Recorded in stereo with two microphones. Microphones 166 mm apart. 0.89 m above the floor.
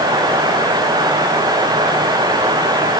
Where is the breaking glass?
No breaking glass in this recording.